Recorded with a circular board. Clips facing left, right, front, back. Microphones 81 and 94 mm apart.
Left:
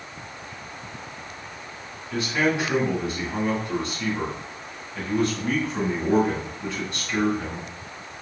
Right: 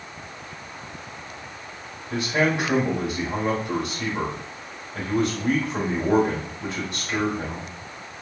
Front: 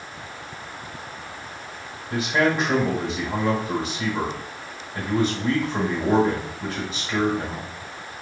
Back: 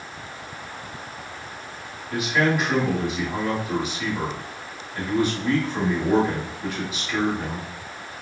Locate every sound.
2.1 s a man speaking: 60° right, 1.9 m